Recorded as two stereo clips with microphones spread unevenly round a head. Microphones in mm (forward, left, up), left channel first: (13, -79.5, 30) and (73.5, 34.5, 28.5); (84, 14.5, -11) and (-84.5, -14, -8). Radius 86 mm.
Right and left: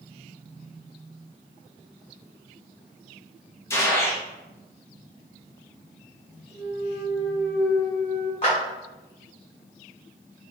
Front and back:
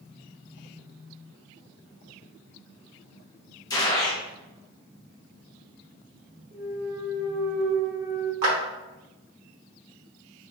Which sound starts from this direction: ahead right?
A gunshot, at 3.7 s.